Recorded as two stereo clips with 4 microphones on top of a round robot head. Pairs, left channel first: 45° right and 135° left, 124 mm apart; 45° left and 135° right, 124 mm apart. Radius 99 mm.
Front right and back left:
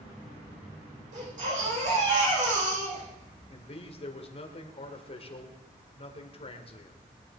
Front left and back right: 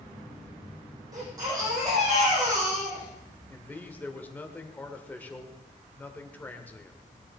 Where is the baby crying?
165° left, 9.5 m.